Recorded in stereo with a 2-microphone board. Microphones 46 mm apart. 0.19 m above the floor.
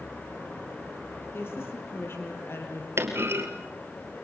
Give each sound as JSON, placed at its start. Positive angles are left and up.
{"t": 1.3, "sound": "a woman speaking", "side_deg": 55, "distance_m": 5.5}
{"t": 3.0, "sound": "a clunk", "side_deg": -60, "distance_m": 3.0}